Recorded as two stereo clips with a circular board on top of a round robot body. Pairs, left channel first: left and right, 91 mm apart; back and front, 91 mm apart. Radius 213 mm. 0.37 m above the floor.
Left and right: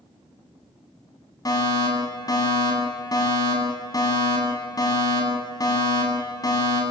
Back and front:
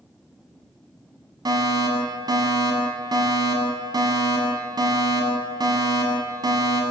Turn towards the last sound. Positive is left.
turn(degrees=40)